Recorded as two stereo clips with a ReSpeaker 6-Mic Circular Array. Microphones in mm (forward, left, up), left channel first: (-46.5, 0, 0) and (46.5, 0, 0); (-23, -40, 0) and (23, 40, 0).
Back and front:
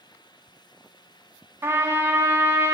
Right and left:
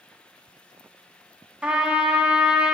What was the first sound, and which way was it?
A trumpet, 10° right.